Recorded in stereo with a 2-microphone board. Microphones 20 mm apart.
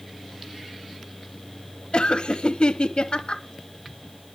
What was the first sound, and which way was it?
Laughter, 55° left (ahead or behind).